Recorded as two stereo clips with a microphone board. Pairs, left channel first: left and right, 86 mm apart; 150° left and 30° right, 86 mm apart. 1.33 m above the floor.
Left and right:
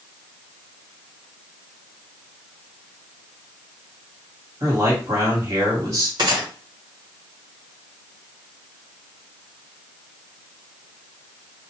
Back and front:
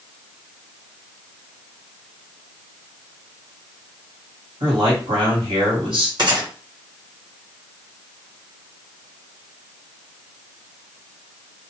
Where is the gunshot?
60° right, 1.5 m.